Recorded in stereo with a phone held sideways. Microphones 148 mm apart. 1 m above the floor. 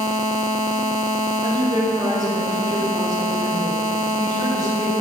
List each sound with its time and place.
1.4 s a woman speaking: 30° right (ahead or behind), 2.5 m; by 4.9 s 25° right (ahead or behind), 4.5 m